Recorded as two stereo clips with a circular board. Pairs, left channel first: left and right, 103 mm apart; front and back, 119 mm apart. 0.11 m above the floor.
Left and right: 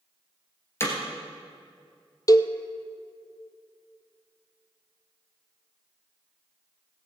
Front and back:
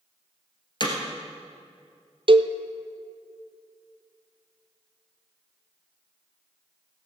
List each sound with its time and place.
0.8 s hammering: 30° left, 2 m
2.3 s a cowbell: 140° left, 0.6 m